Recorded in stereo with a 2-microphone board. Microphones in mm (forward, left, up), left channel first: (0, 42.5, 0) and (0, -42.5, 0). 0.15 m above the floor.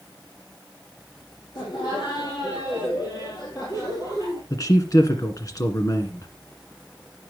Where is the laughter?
60° left (ahead or behind), 4 m; by 4.4 s 40° left (ahead or behind), 3.5 m.